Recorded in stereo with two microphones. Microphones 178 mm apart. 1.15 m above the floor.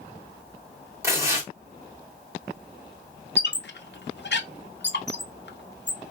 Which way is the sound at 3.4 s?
70° left (ahead or behind).